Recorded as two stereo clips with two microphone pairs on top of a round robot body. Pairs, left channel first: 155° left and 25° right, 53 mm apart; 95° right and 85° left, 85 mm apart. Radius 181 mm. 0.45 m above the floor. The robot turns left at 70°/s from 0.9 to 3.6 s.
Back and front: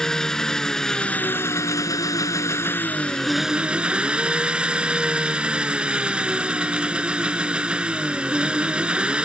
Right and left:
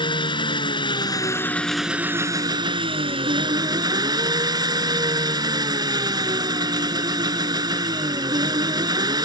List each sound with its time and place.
0.0 s an engine running: 125° right; by 9.2 s 45° left